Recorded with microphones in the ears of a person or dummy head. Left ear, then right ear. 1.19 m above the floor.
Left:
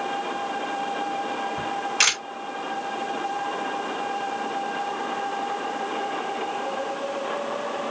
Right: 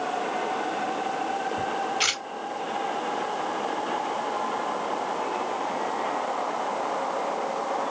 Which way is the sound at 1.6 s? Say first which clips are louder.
Left 5 dB; 60° left (ahead or behind).